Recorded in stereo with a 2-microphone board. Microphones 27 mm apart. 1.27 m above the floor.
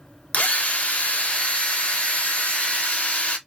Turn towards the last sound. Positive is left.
turn(degrees=55)  # may be behind; listen again after turning